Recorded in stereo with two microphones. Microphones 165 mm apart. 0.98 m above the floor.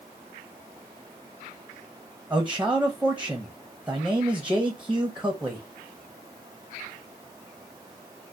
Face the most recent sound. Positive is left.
turn(degrees=-5)  # may be behind; listen again after turning